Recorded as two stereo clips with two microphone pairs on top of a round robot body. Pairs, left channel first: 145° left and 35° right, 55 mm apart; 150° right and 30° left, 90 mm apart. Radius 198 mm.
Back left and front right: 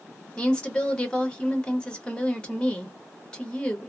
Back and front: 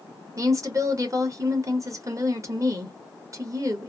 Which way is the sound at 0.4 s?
75° left.